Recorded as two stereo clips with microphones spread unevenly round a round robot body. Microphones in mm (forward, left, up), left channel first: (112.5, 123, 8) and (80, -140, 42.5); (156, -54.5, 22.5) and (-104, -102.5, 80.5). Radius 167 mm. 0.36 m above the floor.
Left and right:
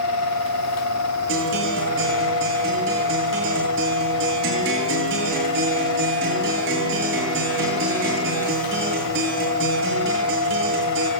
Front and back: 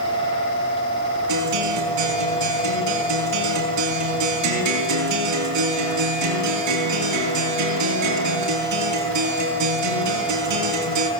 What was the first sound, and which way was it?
A guitar, 155° right.